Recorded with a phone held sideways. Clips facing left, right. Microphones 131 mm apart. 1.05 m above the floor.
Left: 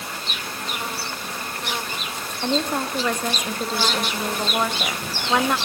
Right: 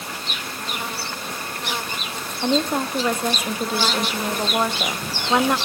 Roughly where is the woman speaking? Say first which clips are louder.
Right 2 dB; centre.